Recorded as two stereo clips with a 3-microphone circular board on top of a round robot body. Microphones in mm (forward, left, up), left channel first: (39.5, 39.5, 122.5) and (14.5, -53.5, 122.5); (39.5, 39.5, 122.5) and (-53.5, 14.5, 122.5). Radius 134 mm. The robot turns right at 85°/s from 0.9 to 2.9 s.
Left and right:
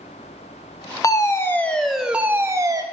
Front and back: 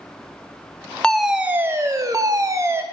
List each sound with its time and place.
1.0 s a fire alarm: 90° left, 1.6 m; by 2.8 s 115° right, 1.6 m